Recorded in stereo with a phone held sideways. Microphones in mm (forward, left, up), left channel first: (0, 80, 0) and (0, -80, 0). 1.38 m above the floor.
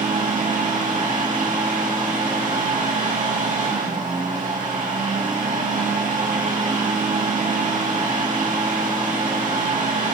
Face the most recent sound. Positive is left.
turn(degrees=-55)  # may be behind; listen again after turning